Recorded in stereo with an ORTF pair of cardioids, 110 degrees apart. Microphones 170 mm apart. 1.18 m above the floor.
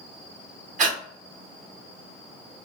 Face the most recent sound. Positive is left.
turn(degrees=-50)